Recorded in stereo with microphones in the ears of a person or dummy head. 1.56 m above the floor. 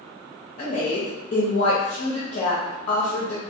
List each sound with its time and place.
0.6 s a woman speaking: 40° left (ahead or behind), 0.7 m